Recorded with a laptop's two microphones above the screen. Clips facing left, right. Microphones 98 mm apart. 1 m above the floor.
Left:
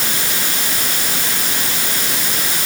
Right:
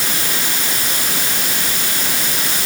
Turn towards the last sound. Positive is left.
No sound to turn to.